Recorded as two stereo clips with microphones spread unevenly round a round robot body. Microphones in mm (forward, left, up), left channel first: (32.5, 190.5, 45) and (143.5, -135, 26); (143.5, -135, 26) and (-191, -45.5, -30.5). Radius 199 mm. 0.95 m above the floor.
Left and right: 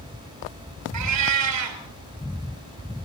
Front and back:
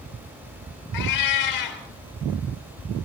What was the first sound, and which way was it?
A cat meowing, 30° right.